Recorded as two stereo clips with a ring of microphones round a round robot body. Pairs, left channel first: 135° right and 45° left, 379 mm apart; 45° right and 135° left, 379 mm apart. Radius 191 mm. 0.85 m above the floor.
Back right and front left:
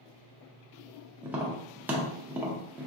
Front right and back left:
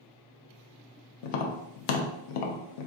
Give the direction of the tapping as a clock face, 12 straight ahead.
1 o'clock.